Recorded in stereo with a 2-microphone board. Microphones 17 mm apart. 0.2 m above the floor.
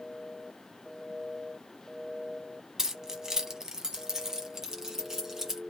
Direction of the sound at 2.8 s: 30° right (ahead or behind).